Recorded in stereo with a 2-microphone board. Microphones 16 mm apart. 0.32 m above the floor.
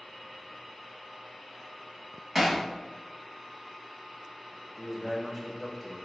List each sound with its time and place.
2.4 s hammering: 5° right (ahead or behind), 1.8 m
4.8 s a man speaking: 10° right (ahead or behind), 1.5 m